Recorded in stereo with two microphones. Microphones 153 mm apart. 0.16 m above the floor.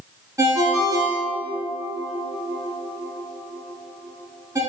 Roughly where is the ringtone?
Right.